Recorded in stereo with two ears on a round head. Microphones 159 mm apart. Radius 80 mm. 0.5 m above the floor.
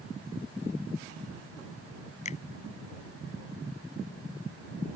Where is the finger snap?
40° left (ahead or behind).